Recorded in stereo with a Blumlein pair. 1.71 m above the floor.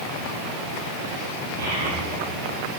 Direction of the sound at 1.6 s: 70° right.